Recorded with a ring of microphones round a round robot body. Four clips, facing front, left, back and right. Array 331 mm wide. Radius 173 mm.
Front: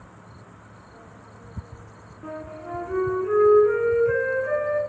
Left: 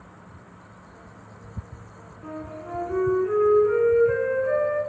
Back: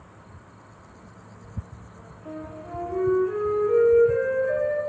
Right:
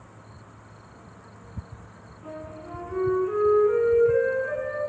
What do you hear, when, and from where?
2.2 s a flute: 25° left, 5.5 m